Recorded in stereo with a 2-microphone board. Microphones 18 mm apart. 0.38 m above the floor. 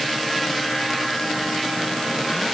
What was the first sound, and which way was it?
Only background noise.